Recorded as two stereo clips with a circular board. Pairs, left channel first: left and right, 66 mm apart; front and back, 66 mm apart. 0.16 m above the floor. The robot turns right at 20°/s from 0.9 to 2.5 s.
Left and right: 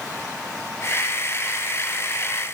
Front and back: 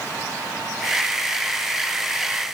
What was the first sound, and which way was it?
Only background noise.